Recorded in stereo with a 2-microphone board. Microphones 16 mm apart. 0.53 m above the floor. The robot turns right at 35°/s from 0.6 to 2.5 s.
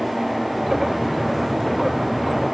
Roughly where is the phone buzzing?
No phone buzzing in this recording.